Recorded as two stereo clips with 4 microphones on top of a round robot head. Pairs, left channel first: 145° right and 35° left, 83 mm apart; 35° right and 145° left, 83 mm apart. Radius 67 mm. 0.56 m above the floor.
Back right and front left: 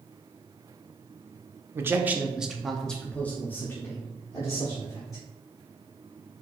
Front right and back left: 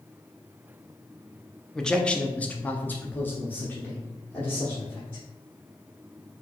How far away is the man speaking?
About 0.8 m.